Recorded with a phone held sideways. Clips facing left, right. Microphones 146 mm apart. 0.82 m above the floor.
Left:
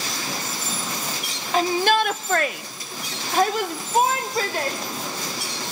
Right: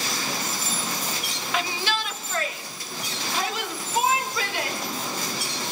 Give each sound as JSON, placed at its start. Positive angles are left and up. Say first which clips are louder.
{"t": 1.5, "sound": "a shout", "louder": "left 9 dB", "side_deg": 35, "distance_m": 0.9}